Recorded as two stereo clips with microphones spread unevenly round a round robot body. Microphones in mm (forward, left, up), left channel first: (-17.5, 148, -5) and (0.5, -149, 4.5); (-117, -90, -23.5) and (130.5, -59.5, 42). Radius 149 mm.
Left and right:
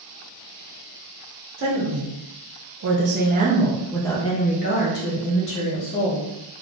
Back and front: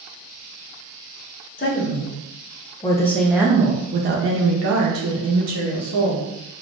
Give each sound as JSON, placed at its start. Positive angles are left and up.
{"t": 1.6, "sound": "a woman speaking", "azimuth_deg": -125, "distance_m": 1.3}